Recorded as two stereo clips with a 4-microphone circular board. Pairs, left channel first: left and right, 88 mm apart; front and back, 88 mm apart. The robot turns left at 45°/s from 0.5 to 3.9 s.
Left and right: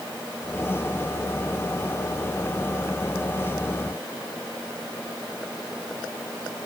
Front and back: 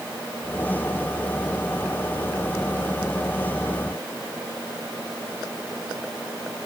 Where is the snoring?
I don't hear snoring.